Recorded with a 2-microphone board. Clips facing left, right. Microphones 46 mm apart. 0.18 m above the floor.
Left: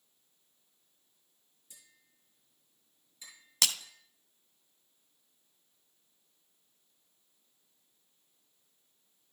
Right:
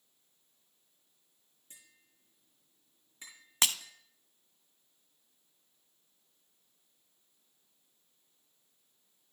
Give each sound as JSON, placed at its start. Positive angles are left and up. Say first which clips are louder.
{"t": 1.7, "sound": "tapping", "louder": "right 2 dB", "side_deg": -45, "distance_m": 6.0}
{"t": 3.6, "sound": "breaking glass", "louder": "right 1 dB", "side_deg": -30, "distance_m": 0.5}